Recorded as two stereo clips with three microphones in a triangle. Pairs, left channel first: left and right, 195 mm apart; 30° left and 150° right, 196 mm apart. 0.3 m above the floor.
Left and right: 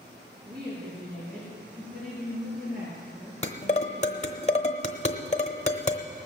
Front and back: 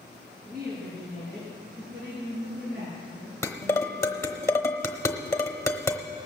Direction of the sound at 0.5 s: 115° right.